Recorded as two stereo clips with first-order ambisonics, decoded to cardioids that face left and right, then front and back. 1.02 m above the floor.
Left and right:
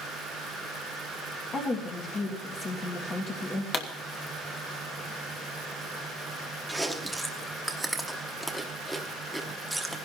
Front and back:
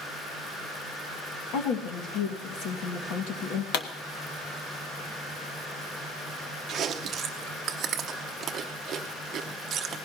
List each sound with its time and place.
1.5 s a woman speaking: 25° left, 1.7 m
3.7 s a pop: 30° left, 1.2 m
6.7 s chewing: straight behind, 0.8 m